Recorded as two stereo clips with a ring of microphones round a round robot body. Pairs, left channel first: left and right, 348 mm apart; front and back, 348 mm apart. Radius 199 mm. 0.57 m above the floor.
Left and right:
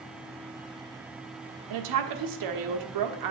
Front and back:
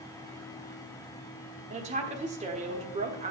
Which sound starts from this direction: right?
A woman speaking, at 1.7 s.